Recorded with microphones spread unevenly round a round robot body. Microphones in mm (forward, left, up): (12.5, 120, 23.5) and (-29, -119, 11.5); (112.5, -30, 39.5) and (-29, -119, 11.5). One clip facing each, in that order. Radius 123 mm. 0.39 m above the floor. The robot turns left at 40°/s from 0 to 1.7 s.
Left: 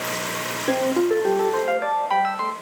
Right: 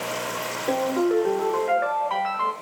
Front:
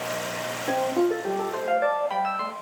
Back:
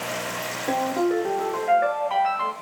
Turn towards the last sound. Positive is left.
turn(degrees=90)